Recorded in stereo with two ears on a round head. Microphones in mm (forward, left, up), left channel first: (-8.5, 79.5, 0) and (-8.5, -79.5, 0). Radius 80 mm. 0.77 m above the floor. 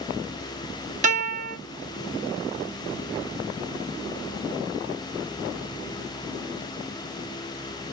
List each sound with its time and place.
1.0 s a guitar: 40° right (ahead or behind), 1.7 m